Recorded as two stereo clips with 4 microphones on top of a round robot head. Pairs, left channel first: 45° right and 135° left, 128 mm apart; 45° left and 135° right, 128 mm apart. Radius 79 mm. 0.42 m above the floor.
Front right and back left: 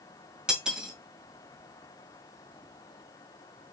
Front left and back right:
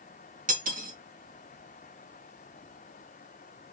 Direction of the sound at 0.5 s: 140° right.